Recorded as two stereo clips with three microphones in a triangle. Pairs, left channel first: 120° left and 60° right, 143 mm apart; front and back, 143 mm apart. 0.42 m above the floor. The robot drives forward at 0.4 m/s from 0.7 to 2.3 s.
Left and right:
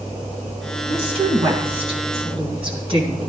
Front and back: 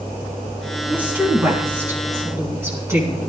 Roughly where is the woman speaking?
Right.